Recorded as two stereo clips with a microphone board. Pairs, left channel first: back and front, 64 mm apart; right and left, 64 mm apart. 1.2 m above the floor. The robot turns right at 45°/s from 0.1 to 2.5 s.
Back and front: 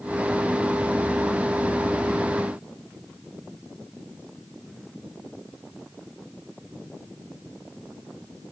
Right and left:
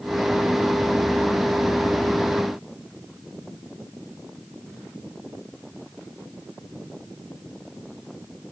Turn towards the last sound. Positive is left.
No sound to turn to.